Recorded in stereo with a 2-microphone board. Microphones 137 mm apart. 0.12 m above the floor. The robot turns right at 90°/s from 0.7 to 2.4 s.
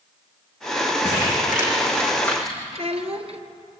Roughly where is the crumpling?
Left.